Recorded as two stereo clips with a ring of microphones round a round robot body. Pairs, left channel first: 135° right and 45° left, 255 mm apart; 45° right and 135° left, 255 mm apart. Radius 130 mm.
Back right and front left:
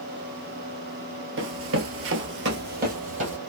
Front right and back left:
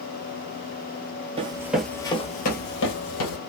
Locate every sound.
1.4 s running footsteps: 70° left, 0.7 m; by 3.4 s 20° right, 1.1 m